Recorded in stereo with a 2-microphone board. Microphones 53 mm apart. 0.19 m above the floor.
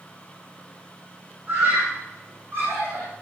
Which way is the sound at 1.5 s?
30° right (ahead or behind).